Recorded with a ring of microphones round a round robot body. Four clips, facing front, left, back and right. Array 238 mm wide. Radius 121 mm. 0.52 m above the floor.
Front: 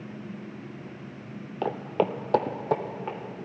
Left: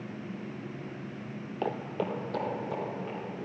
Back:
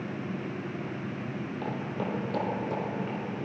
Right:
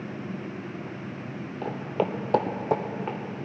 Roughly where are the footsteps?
Ahead left.